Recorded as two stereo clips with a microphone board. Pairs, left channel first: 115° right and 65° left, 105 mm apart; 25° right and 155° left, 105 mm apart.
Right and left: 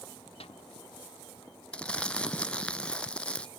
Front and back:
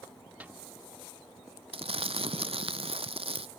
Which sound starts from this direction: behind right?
A snare drum, at 0.4 s.